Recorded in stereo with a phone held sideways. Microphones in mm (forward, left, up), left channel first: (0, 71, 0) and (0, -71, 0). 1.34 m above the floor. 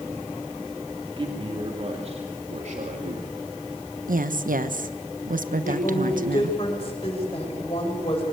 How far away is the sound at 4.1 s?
About 1.1 m.